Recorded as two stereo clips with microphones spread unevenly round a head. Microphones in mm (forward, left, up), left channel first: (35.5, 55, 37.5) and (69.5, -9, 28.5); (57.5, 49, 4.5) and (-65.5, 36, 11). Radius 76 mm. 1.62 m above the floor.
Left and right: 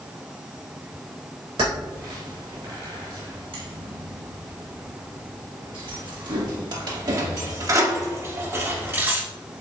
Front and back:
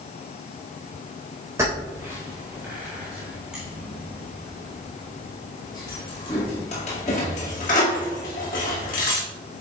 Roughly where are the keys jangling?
Right.